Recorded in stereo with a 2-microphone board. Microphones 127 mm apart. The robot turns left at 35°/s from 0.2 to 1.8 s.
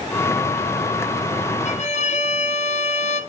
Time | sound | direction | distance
1.6 | a violin | 65° left (ahead or behind) | 1.1 m